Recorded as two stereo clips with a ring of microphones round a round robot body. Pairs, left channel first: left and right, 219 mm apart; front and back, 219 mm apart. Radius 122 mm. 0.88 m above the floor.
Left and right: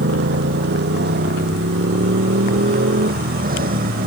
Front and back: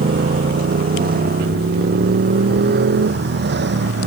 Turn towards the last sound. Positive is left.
turn(degrees=-140)